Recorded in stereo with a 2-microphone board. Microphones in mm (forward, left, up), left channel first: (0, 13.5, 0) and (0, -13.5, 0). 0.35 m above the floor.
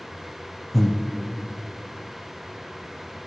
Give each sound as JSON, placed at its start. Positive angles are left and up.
{"t": 0.7, "sound": "breathing", "side_deg": 5, "distance_m": 0.5}